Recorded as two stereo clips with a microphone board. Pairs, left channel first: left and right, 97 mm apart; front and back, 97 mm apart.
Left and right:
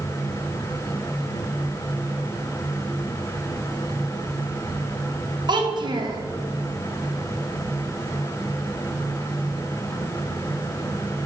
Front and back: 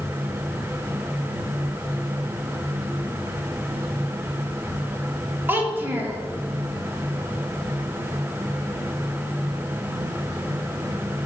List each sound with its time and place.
5.5 s a child speaking: 115° right, 0.6 m